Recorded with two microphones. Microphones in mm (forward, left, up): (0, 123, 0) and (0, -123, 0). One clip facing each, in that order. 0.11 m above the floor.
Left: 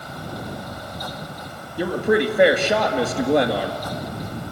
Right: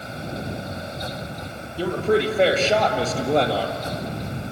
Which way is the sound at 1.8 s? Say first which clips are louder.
Left 1 dB; 15° left (ahead or behind).